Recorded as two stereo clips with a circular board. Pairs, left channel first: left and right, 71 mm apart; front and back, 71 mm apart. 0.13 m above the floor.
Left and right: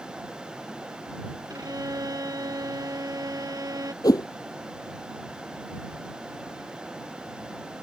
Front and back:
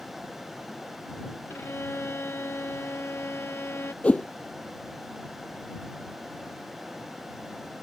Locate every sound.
1.5 s a violin: 55° right
4.0 s a whoosh: 70° left